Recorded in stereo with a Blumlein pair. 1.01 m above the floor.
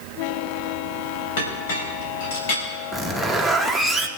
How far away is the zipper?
About 1.0 m.